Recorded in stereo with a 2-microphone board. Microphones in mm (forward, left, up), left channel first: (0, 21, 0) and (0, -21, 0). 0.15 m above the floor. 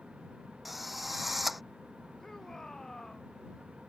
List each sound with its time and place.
0.7 s a drill: 5° right (ahead or behind)
2.2 s a shout: 10° left (ahead or behind)